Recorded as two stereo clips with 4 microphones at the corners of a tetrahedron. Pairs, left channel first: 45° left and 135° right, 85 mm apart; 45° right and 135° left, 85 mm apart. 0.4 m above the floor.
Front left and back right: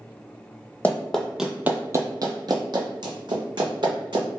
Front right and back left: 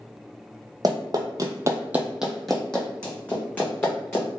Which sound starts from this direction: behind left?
Running footsteps, at 0.8 s.